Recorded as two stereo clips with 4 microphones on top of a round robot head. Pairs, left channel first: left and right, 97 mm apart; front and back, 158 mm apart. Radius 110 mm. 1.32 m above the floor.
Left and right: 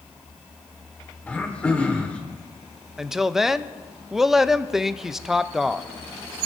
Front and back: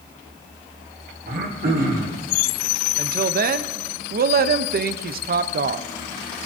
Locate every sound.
1.3 s throat clearing: 165° left, 1.3 m
3.0 s a woman speaking: 175° right, 0.7 m